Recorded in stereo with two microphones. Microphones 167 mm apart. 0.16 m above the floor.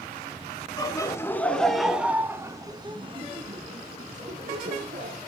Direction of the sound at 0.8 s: 25° left (ahead or behind).